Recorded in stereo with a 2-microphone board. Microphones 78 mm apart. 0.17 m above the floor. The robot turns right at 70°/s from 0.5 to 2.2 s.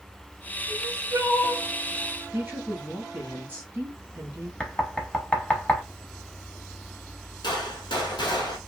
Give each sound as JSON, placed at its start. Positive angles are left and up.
{"t": 0.7, "sound": "crying", "azimuth_deg": -145, "distance_m": 1.2}
{"t": 2.3, "sound": "a woman speaking", "side_deg": -25, "distance_m": 1.4}
{"t": 4.6, "sound": "knocking", "side_deg": 15, "distance_m": 0.8}
{"t": 7.4, "sound": "a gunshot", "side_deg": 80, "distance_m": 1.1}